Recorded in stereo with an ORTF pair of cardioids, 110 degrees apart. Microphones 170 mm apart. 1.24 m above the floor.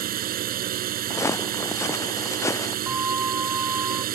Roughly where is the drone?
Ahead right.